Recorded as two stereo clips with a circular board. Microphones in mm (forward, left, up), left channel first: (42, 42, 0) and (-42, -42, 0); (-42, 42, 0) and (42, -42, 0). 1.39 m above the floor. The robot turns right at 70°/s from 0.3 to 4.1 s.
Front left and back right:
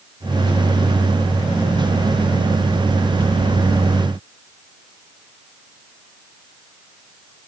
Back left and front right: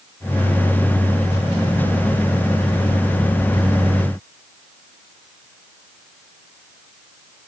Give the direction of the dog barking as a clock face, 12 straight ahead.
No dog barking in this recording.